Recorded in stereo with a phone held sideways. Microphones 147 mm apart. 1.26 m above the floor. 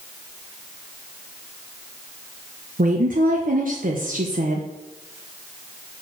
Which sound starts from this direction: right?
A woman speaking, at 2.8 s.